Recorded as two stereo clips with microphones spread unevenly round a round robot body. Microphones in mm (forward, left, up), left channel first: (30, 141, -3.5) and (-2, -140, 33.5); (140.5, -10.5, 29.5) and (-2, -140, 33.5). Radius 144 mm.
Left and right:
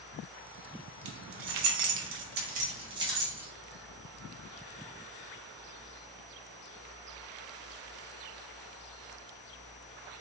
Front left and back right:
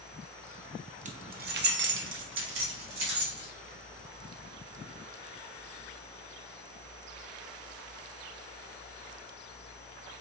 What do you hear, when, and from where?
1.1 s keys jangling: 85° right, 0.7 m; by 3.5 s straight behind, 1.1 m